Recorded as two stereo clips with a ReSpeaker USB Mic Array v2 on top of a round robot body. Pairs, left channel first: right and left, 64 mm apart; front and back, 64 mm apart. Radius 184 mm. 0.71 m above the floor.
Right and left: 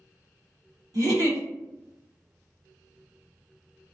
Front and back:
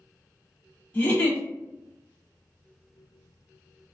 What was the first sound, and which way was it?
A giggle, 60° left.